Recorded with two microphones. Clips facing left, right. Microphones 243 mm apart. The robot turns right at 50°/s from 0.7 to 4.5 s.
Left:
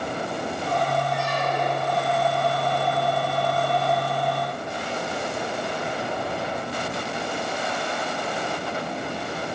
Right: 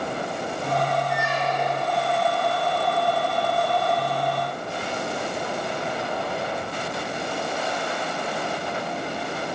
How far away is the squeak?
About 2.5 m.